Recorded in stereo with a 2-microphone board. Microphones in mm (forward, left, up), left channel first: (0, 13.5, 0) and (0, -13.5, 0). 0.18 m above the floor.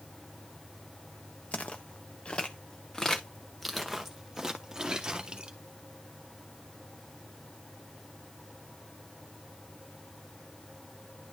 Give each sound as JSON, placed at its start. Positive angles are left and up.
{"t": 1.5, "sound": "footsteps", "side_deg": 60, "distance_m": 1.4}